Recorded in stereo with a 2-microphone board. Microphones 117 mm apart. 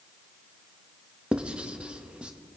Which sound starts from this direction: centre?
Writing, at 1.3 s.